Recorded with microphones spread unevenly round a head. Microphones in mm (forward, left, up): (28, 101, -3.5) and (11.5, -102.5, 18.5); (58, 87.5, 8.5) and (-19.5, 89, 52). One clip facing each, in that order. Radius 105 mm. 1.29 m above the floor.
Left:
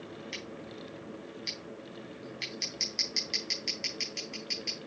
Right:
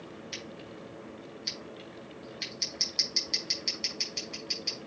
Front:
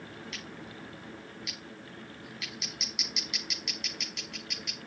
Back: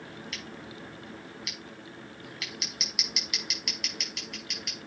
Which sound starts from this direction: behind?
Scissors, at 0.3 s.